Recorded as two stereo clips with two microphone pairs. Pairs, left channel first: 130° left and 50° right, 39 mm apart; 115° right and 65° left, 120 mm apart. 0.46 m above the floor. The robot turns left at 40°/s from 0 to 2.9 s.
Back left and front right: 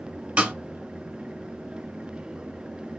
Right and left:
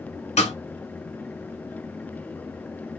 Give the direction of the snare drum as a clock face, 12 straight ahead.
3 o'clock.